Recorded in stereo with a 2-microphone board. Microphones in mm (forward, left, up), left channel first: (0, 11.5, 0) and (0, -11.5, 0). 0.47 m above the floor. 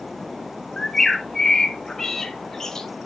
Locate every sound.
0.8 s a bird: 15° left (ahead or behind), 1.7 m